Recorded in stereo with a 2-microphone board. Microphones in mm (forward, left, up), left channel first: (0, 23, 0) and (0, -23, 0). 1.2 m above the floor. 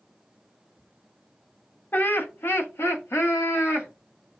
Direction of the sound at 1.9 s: 40° left (ahead or behind).